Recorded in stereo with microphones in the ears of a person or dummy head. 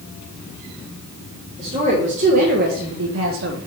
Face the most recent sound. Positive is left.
turn(degrees=-50)  # may be behind; listen again after turning